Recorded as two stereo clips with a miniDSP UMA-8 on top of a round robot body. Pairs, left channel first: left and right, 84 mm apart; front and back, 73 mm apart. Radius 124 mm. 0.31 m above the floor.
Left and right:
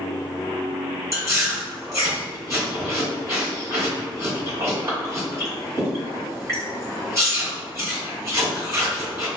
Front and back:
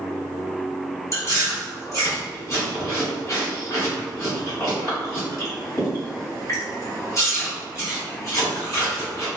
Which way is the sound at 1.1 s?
40° right.